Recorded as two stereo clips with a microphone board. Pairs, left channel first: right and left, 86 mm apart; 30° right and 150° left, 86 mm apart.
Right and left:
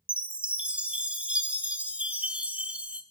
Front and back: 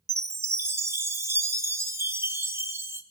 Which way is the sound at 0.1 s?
150° left.